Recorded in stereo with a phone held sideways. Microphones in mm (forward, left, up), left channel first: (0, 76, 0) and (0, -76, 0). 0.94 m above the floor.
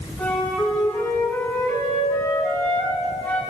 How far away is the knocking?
I don't hear knocking.